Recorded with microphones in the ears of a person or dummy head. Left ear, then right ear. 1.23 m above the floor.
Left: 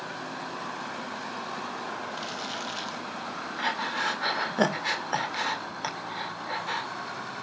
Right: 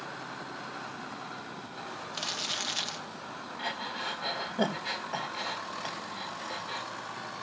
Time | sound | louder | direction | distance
2.1 | crumpling | right 1 dB | 30° right (ahead or behind) | 0.5 m
3.6 | breathing | left 7 dB | 60° left (ahead or behind) | 1.5 m